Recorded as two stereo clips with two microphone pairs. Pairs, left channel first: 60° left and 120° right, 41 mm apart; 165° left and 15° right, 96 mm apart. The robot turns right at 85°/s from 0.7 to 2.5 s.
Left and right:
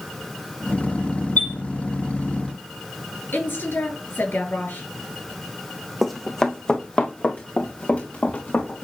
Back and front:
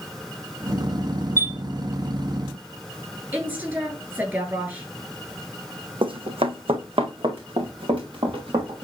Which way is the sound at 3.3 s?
50° left.